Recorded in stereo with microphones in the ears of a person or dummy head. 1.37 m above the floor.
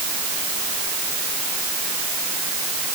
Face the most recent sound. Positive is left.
No sound to turn to.